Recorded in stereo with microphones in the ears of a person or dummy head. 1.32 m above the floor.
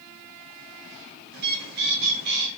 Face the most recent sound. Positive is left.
turn(degrees=-55)  # may be behind; listen again after turning